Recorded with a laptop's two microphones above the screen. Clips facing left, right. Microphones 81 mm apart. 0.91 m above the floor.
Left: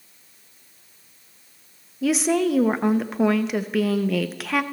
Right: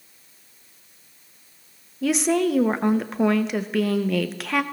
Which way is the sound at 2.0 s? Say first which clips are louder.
Even; centre (ahead or behind).